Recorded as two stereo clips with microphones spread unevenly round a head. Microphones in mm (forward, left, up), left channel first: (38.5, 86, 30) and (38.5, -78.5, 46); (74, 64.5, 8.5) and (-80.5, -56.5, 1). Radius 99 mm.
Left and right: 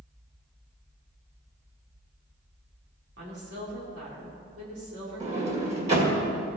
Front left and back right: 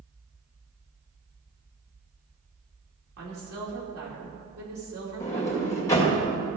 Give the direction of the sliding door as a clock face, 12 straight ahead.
1 o'clock.